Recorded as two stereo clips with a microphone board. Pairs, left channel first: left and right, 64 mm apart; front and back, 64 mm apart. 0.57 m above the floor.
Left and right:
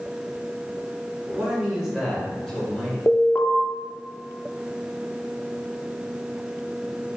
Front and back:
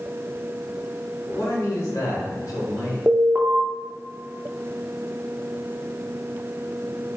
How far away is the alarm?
About 0.6 m.